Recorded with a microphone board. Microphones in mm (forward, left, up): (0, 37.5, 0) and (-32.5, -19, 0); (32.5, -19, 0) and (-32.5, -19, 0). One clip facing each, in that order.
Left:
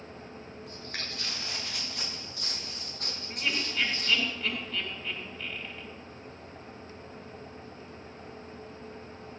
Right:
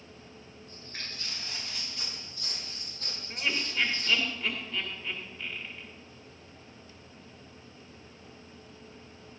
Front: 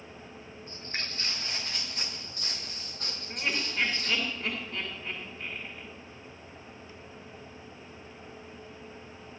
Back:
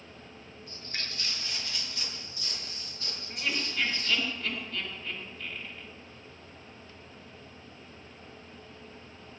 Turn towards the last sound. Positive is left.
turn(degrees=-30)